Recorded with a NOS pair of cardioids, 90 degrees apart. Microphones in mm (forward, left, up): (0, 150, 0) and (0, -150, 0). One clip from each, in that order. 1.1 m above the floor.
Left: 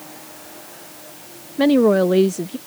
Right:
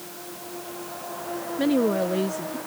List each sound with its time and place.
1.6 s a woman speaking: 45° left